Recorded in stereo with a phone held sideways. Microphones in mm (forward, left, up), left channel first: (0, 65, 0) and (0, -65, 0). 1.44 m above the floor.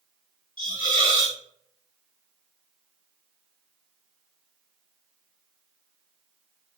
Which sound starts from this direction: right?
A hiss, at 0.6 s.